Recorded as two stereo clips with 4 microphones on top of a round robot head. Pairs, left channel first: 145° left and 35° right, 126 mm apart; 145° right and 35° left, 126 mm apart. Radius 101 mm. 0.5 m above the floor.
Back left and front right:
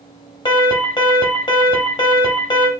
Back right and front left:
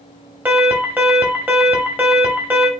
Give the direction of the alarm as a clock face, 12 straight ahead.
8 o'clock.